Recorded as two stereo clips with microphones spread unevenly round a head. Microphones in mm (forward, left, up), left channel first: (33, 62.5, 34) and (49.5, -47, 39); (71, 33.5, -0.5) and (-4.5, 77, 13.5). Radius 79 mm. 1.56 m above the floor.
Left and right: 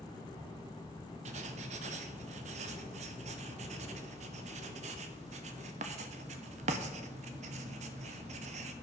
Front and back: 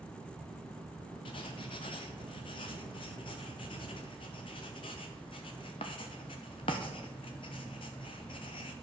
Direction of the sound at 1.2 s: 80° right.